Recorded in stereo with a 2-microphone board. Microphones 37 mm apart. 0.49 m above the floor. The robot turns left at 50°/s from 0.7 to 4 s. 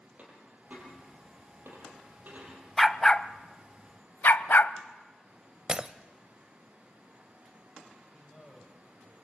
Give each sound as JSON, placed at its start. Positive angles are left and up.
{"t": 0.2, "sound": "a dropped coin", "side_deg": -50, "distance_m": 5.5}
{"t": 2.8, "sound": "a dog barking", "side_deg": 5, "distance_m": 0.6}
{"t": 5.7, "sound": "breaking glass", "side_deg": -30, "distance_m": 0.6}
{"t": 8.1, "sound": "a man speaking", "side_deg": 20, "distance_m": 3.0}